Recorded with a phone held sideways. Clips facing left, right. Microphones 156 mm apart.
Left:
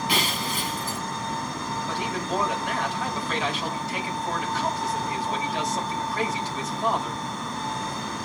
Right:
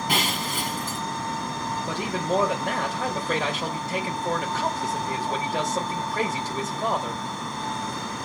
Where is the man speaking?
45° right (ahead or behind), 4.5 m.